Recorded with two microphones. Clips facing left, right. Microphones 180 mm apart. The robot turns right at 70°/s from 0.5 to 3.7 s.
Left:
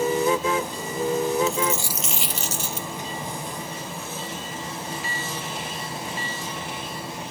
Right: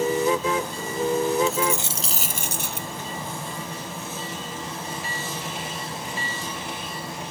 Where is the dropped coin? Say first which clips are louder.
Even; straight behind; by 2.9 s 85° right.